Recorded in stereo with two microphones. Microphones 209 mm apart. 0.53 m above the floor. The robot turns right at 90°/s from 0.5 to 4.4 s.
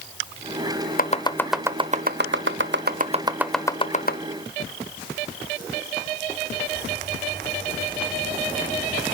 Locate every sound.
1.0 s chopping: 45° left (ahead or behind), 0.7 m; by 4.2 s 60° left (ahead or behind), 0.7 m